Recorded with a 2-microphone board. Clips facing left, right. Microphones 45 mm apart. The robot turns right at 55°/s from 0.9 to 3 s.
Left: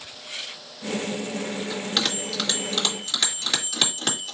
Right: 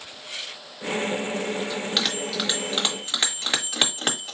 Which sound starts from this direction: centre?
A bell, at 1.7 s.